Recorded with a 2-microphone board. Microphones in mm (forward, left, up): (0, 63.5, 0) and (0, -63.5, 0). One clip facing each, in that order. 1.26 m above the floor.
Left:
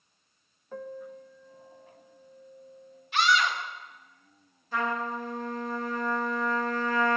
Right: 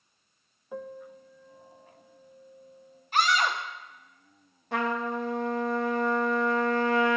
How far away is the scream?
About 1.0 m.